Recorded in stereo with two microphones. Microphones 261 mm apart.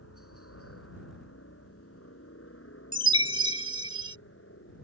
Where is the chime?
20° right (ahead or behind).